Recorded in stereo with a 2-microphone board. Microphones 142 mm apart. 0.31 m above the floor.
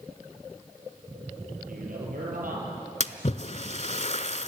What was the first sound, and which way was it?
A man speaking, 75° right (ahead or behind).